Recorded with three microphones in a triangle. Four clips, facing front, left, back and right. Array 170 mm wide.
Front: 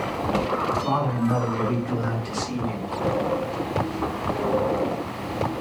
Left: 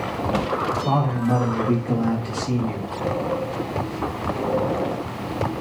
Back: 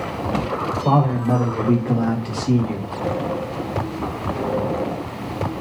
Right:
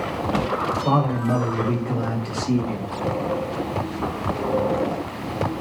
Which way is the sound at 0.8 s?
170° right.